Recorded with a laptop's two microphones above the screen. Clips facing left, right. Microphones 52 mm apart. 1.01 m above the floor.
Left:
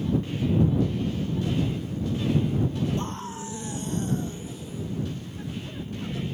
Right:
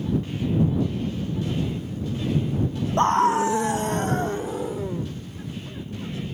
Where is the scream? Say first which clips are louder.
Right 15 dB; 65° right (ahead or behind); by 5.1 s 75° right (ahead or behind).